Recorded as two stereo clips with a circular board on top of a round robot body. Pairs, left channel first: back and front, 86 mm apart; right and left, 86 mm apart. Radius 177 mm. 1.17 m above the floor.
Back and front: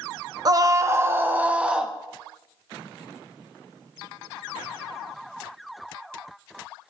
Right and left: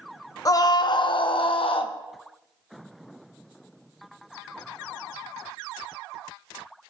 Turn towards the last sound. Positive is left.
turn(degrees=-80)